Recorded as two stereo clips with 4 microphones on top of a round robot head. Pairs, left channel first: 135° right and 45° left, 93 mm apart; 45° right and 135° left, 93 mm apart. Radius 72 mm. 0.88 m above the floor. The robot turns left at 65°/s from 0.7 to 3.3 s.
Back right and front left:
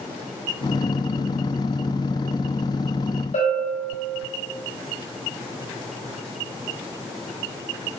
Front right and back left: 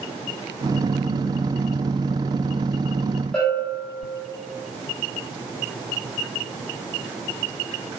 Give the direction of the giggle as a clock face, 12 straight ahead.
No giggle in this recording.